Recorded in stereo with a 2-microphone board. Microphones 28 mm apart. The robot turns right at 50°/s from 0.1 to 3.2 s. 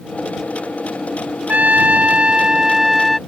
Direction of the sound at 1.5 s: 85° right.